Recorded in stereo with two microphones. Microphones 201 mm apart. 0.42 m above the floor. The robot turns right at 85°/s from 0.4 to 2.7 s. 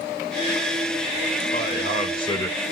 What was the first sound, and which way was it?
A man speaking, 85° left.